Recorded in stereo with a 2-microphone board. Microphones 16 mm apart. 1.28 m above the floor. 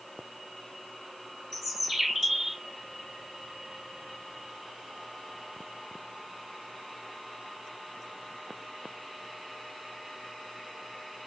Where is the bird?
20° right (ahead or behind), 2.5 m.